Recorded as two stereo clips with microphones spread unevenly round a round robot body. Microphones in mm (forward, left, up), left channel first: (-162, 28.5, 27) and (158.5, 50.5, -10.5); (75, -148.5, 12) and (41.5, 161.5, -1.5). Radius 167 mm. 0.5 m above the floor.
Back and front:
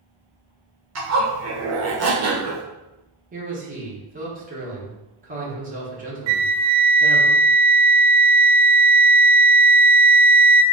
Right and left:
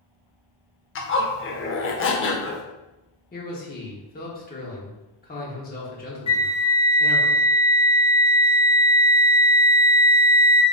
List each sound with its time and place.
0.9 s a zipper: 35° right, 0.8 m
3.3 s a man speaking: 35° right, 1.2 m
6.3 s a flute: 10° right, 0.6 m